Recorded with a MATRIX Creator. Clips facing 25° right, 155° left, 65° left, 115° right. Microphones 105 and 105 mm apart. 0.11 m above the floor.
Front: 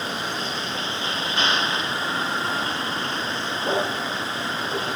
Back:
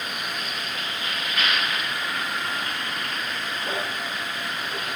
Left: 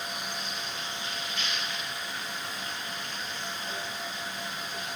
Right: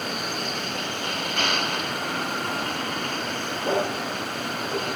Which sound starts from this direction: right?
A vehicle, at 0.0 s.